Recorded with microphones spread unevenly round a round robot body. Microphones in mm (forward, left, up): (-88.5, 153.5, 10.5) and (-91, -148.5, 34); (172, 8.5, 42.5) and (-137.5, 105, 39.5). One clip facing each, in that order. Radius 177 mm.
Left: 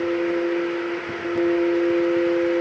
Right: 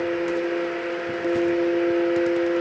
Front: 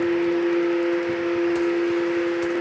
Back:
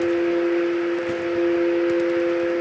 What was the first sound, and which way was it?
Only background noise.